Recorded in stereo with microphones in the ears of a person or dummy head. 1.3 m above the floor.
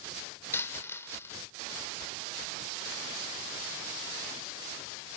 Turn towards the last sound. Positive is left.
turn(degrees=15)  # may be behind; listen again after turning